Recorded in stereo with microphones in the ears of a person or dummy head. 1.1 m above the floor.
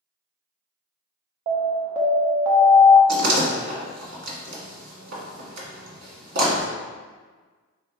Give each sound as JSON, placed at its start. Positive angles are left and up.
{"t": 1.5, "sound": "an alarm", "side_deg": -25, "distance_m": 0.7}
{"t": 3.1, "sound": "a door slam", "side_deg": -75, "distance_m": 1.5}